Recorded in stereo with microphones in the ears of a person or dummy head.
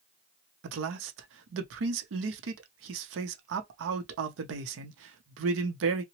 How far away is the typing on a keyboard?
I don't hear typing on a keyboard.